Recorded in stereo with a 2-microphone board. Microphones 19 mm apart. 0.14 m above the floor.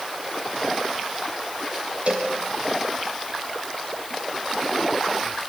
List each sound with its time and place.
2.1 s a cowbell: 70° right (ahead or behind), 4.5 m